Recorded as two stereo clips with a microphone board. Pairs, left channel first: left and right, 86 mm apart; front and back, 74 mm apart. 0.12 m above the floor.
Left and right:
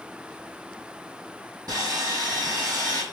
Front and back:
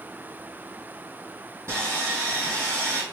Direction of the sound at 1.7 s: 135° right.